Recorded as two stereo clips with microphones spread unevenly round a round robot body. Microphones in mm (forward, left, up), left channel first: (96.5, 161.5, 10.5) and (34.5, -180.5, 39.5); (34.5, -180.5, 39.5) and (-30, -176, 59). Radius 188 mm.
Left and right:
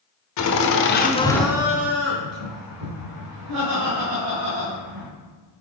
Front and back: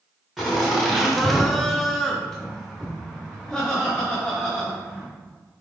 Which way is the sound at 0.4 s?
75° left.